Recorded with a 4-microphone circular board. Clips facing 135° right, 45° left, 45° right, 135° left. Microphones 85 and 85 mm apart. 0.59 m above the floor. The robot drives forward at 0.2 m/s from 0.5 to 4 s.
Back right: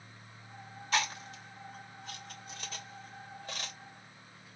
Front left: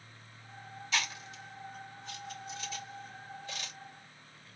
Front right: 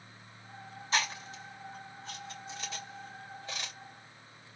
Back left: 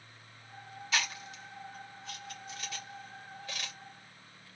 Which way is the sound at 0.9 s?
95° right.